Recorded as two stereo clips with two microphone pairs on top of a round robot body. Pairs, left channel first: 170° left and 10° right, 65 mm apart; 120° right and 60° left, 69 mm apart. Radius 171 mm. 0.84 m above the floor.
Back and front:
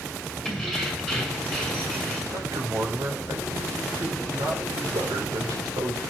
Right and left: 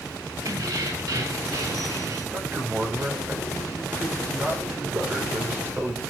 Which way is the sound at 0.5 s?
85° left.